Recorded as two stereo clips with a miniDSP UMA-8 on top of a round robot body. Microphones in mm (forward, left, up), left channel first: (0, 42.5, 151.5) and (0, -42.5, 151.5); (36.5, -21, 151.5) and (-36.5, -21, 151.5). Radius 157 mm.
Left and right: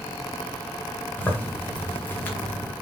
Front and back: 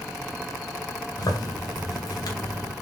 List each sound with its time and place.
1.2 s a zipper: 20° left, 2 m